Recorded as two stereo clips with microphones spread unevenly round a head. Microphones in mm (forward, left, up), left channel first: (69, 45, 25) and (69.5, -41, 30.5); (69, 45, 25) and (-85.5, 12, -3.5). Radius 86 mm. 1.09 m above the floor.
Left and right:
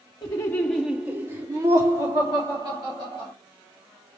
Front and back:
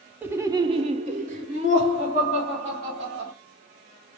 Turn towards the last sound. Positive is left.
turn(degrees=-115)